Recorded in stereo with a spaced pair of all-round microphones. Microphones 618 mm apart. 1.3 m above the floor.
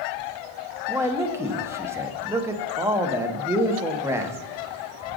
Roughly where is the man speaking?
Centre.